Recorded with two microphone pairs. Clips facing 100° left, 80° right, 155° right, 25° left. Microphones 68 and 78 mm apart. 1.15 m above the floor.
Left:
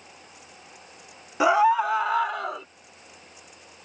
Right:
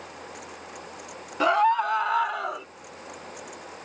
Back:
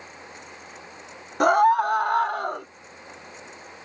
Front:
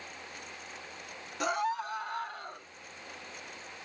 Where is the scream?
Straight behind; by 2.7 s 165° right.